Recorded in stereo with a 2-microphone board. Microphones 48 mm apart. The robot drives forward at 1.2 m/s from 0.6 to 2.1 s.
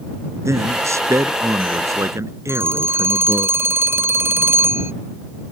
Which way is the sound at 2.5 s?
55° right (ahead or behind).